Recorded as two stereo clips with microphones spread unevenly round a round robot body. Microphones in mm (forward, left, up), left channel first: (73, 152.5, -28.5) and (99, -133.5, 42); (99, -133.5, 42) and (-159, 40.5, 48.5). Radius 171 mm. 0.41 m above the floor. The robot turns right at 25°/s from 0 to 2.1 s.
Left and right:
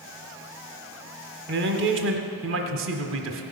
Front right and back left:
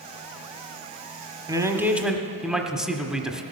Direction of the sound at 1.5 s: 140° right.